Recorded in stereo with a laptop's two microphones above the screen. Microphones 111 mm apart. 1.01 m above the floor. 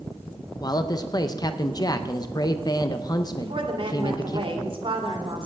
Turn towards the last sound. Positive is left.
turn(degrees=-50)  # may be behind; listen again after turning